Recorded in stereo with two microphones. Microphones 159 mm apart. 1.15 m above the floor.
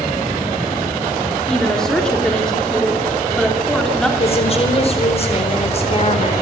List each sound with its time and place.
1.5 s a woman speaking: 5° left (ahead or behind), 3 m
4.2 s a woman speaking: 40° left (ahead or behind), 4.5 m